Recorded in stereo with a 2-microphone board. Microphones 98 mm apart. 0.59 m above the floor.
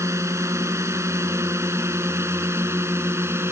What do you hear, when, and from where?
0.0 s a drone: 30° right (ahead or behind); by 3.5 s 25° right (ahead or behind)